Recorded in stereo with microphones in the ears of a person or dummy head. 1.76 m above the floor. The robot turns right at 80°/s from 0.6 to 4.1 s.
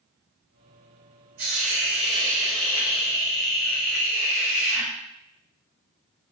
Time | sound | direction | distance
1.4 | a hiss | 100° right | 4 m